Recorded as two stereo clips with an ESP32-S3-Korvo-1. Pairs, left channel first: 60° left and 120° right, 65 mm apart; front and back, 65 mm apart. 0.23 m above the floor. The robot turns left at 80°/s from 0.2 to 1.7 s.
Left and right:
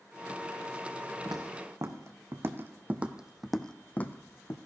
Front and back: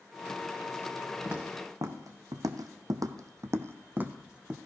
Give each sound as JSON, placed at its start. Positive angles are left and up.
{"t": 1.2, "sound": "footsteps", "azimuth_deg": -115, "distance_m": 1.5}